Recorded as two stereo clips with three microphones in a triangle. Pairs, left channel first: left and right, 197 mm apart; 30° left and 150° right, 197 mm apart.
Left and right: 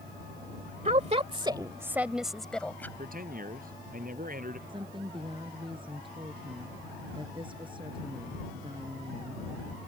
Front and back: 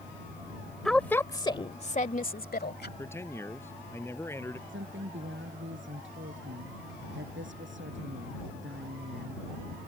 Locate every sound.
0.8 s a woman speaking: 55° right; by 2.9 s 10° left
3.0 s a man speaking: 45° right
4.7 s a woman speaking: 155° right